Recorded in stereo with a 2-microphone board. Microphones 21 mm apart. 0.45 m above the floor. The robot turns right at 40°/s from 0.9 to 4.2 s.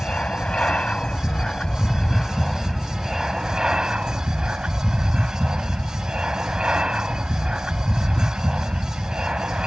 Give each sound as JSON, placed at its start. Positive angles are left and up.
{"t": 0.0, "sound": "an aircraft", "azimuth_deg": 110}